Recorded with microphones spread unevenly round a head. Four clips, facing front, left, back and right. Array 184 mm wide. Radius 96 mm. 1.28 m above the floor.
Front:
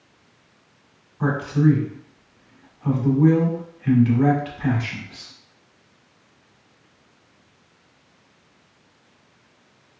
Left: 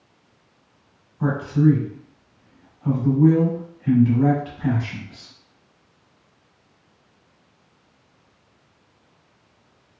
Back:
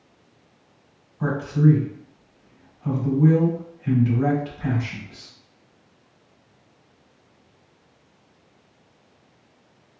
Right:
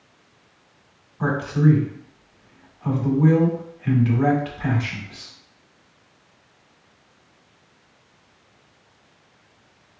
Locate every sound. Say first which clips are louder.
1.2 s a man speaking: left 1 dB, front 1 dB; 40° right, 1.6 m